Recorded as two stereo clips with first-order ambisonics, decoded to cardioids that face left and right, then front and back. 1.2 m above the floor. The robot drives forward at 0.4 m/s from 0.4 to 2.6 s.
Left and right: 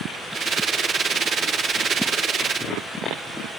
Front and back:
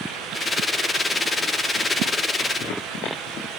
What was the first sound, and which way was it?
Only background noise.